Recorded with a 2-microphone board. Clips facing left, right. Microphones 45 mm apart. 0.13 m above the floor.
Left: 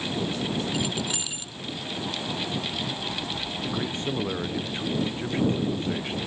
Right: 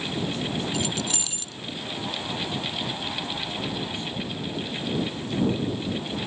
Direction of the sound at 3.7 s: 50° left (ahead or behind).